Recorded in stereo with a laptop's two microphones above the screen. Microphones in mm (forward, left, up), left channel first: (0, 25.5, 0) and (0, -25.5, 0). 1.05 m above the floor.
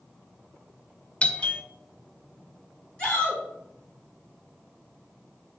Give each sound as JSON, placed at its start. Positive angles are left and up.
{"t": 1.2, "sound": "a doorbell", "side_deg": 25, "distance_m": 0.6}
{"t": 3.0, "sound": "a shout", "side_deg": 20, "distance_m": 2.5}